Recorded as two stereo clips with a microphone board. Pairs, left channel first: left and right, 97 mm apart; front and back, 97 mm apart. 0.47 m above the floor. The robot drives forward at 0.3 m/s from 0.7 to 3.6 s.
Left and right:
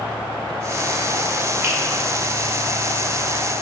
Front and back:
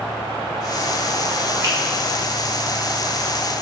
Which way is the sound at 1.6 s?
140° right.